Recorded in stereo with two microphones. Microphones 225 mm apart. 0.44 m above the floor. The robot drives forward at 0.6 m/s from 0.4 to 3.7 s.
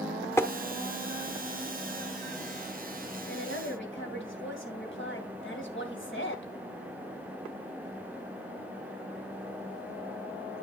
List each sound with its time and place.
0.4 s tapping: 10° left (ahead or behind), 1.0 m
3.3 s a woman speaking: 60° left (ahead or behind), 2.5 m